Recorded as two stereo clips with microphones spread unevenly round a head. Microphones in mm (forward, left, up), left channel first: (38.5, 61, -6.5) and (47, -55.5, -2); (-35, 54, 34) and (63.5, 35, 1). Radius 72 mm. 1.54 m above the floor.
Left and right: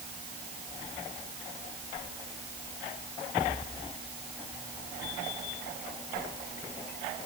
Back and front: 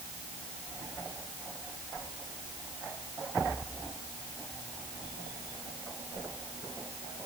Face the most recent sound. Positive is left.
No sound to turn to.